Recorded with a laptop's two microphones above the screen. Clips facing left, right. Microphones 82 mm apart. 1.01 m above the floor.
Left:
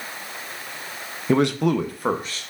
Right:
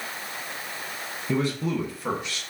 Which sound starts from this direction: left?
A man speaking, at 1.3 s.